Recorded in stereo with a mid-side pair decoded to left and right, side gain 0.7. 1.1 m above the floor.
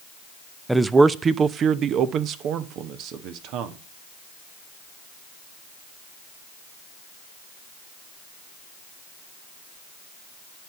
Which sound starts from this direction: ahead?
A man speaking, at 0.7 s.